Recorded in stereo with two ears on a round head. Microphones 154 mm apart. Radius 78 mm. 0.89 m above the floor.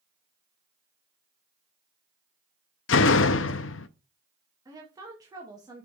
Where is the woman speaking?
25° right (ahead or behind), 1.3 m.